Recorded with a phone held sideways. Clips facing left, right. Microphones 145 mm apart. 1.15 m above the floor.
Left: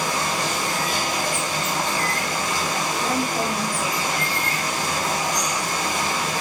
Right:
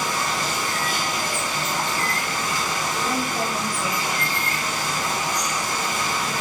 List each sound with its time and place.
0.0 s running water: 70° left (ahead or behind), 1.3 m
3.0 s a woman speaking: 50° left (ahead or behind), 1.6 m